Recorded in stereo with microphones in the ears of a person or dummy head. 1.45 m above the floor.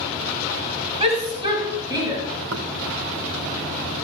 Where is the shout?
35° right (ahead or behind), 5.5 m; by 2.2 s 20° right (ahead or behind), 5.5 m.